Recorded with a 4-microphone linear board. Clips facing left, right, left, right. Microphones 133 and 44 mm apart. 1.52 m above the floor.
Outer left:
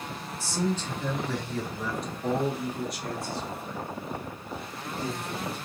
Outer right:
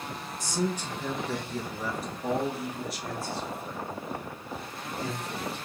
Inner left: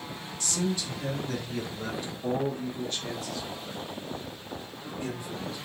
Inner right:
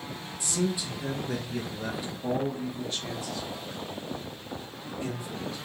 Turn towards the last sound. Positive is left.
turn(degrees=0)  # may be behind; listen again after turning